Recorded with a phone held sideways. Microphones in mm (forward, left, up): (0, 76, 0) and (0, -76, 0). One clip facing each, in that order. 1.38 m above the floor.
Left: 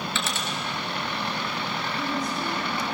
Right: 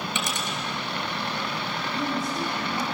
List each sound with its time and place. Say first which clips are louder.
0.1 s a dropped coin: even; 15° right (ahead or behind), 3 m
1.9 s a woman speaking: right 2 dB; 30° right (ahead or behind), 9 m